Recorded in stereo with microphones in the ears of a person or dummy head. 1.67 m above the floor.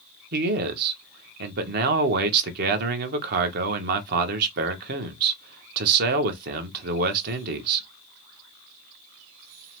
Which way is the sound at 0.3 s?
55° right (ahead or behind).